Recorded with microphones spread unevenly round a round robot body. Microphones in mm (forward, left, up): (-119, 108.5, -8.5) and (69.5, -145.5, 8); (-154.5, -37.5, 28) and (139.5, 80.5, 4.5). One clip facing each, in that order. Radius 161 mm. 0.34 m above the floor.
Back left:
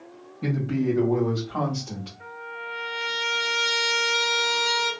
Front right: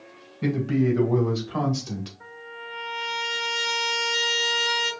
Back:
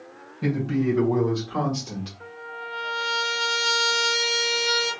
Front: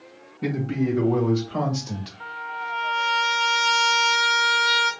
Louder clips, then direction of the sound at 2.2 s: Back left 2 dB, back 2 dB; 80° left.